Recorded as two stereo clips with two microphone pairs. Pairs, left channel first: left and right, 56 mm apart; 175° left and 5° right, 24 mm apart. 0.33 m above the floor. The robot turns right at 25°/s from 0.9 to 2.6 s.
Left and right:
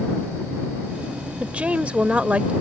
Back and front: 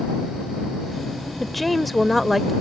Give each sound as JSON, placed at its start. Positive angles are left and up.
{"t": 1.4, "sound": "a woman speaking", "azimuth_deg": -105}